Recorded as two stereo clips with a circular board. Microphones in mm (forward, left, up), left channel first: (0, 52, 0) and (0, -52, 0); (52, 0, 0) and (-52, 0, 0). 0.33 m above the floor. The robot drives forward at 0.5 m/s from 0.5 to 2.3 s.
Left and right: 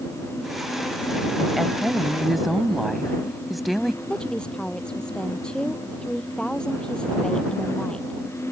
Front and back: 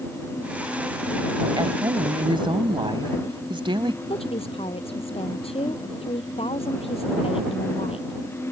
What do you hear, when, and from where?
1.6 s a woman speaking: straight behind
4.1 s a woman speaking: 10° left